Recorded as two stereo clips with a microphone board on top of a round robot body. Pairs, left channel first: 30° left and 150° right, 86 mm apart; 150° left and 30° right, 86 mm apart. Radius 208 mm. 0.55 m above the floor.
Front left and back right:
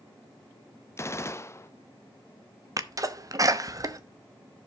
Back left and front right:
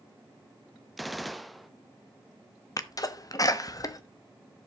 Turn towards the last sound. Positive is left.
turn(degrees=180)